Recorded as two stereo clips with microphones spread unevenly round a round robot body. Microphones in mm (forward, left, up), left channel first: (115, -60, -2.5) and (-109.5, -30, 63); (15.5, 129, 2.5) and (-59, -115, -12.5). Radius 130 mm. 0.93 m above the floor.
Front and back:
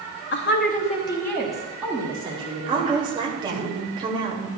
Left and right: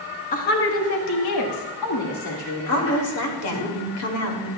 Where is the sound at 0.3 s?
10° left, 1.2 m; by 3.7 s 110° left, 3.5 m.